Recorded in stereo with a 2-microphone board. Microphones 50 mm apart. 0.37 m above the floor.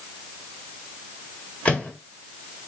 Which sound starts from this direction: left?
A microwave, at 1.6 s.